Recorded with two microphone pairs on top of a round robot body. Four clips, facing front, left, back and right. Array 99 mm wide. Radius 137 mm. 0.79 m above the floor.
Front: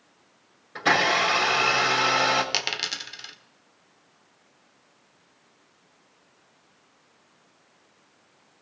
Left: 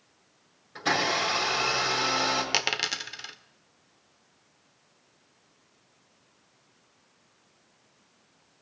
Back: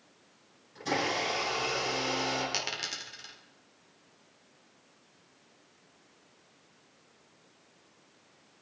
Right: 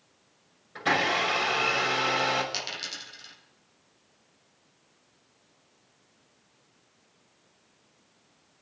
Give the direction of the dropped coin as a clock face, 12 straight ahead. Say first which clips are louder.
Left 7 dB, front 5 dB; 10 o'clock.